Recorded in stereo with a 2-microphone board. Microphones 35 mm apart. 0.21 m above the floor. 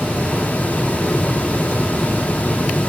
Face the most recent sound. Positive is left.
No sound to turn to.